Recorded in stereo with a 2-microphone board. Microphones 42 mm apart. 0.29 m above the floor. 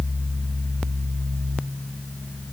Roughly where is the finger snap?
No finger snap in this recording.